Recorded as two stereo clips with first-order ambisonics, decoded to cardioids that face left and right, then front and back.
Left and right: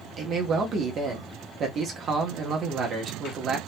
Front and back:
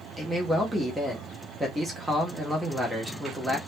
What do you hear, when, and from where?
0.2 s a man speaking: 105° right, 0.7 m